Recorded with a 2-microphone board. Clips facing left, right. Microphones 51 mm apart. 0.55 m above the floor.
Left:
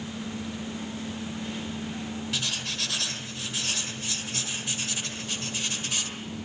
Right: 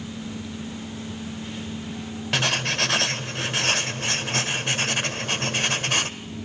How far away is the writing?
About 1.7 m.